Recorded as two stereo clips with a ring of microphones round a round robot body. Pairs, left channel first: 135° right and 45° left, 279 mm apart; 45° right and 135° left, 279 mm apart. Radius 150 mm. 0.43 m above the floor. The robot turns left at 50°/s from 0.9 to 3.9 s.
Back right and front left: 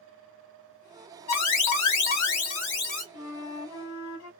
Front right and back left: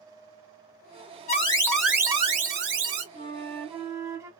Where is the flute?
110° right, 1.3 m; by 4.3 s 145° right, 1.3 m.